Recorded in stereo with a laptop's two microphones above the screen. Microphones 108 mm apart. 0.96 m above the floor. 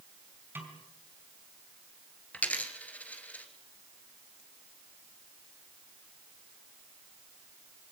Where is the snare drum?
20° right (ahead or behind), 4.5 m.